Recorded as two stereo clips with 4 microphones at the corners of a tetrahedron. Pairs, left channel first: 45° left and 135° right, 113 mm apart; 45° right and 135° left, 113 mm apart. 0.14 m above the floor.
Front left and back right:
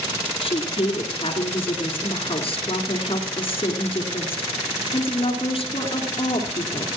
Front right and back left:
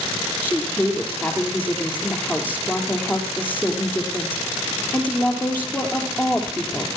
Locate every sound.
0.4 s a woman speaking: 30° left, 2.5 m